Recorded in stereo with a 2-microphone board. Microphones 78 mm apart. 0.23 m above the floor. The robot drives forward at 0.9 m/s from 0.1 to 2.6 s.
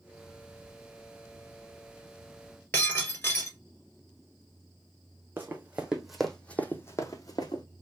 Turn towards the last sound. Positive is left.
turn(degrees=65)  # may be behind; listen again after turning